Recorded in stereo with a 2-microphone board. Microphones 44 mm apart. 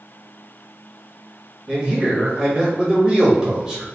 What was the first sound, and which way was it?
A man speaking, 15° right (ahead or behind).